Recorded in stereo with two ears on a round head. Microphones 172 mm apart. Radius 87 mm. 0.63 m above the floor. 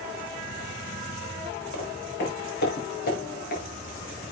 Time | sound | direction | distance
1.7 | footsteps | 60° left (ahead or behind) | 7 m